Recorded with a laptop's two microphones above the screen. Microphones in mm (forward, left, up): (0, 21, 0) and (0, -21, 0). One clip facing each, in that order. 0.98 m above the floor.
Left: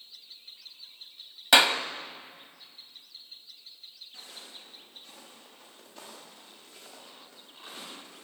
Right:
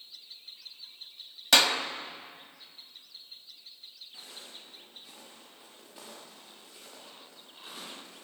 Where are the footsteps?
15° right (ahead or behind), 9.5 m; by 8.2 s centre (ahead or behind), 10.5 m.